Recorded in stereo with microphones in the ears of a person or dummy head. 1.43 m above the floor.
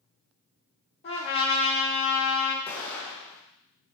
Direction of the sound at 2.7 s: 15° left (ahead or behind).